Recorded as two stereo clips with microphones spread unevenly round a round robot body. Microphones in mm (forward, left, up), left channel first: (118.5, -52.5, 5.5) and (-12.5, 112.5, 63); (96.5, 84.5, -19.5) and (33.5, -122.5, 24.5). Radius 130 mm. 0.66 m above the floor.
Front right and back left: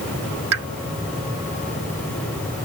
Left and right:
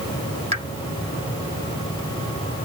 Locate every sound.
0.5 s a pop: straight behind